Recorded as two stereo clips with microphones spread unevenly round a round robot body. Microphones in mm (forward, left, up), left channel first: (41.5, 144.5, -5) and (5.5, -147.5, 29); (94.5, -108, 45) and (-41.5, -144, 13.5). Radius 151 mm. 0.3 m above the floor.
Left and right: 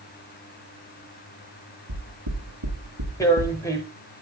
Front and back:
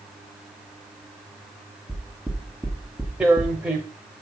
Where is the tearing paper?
140° left, 0.8 m.